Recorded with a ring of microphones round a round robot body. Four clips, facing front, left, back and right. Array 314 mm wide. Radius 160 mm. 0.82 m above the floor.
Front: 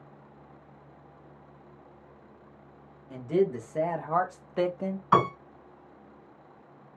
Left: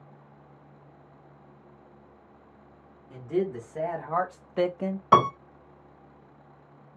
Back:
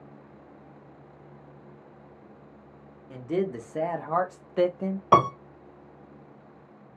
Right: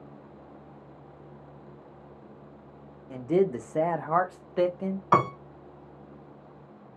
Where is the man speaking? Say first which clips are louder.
Right 4 dB, front 2 dB; 100° right, 1.0 m; by 5.0 s 90° left, 0.6 m.